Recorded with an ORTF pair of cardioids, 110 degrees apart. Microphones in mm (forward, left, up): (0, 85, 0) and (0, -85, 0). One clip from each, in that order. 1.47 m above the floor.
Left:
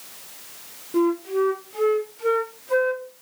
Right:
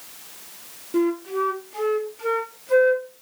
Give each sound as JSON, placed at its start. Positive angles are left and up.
{"t": 0.9, "sound": "a flute", "azimuth_deg": -10, "distance_m": 0.7}